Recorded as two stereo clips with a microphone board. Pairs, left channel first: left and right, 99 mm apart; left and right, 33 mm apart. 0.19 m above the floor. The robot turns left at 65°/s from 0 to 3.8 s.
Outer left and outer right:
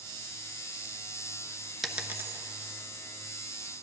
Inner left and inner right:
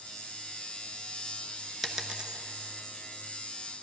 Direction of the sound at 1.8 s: Centre (ahead or behind).